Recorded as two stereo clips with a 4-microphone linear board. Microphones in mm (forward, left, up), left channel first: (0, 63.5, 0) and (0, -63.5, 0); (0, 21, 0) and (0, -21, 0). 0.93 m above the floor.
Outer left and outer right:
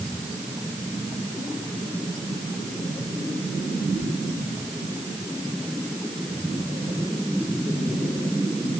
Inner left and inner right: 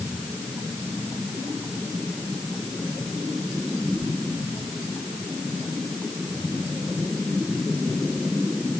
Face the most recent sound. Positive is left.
No sound to turn to.